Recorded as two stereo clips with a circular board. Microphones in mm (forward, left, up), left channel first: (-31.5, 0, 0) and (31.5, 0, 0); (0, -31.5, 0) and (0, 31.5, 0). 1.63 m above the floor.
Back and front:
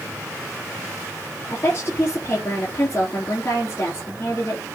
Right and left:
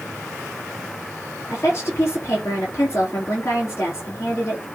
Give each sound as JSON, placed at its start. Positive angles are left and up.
{"t": 1.5, "sound": "a woman speaking", "azimuth_deg": -135, "distance_m": 3.5}